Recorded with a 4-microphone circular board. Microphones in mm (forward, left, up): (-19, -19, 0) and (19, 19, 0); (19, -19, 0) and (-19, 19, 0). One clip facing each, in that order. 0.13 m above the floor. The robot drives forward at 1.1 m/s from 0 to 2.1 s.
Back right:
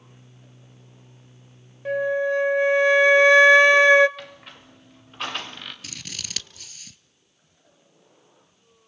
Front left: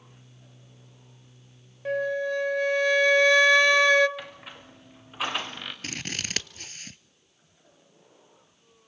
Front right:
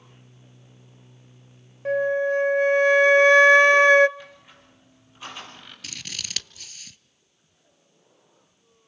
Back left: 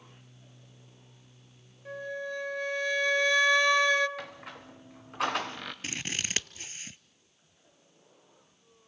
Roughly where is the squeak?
Behind left.